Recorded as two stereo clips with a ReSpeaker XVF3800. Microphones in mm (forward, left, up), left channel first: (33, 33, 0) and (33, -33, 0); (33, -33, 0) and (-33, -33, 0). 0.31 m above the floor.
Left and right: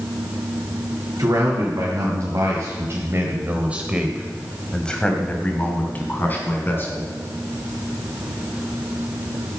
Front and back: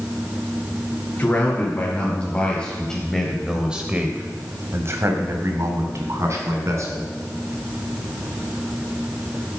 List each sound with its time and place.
1.2 s a man speaking: 55° right, 3 m; by 7.1 s 145° left, 3.5 m